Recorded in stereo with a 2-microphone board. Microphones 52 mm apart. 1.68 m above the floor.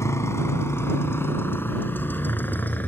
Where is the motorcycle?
65° left (ahead or behind); by 2.9 s 35° left (ahead or behind).